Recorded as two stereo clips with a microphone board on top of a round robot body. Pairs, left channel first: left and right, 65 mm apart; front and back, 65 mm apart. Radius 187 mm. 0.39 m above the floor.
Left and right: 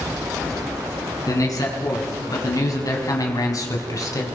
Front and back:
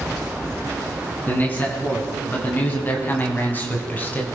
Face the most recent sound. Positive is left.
turn(degrees=65)